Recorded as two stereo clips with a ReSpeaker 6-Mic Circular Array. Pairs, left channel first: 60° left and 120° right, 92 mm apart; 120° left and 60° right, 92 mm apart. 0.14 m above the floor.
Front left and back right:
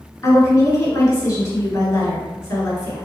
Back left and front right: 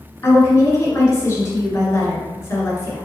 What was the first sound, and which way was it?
A woman speaking, 85° left.